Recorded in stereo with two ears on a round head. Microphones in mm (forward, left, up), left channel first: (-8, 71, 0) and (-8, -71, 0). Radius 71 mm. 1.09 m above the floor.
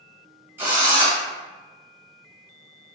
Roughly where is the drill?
Centre.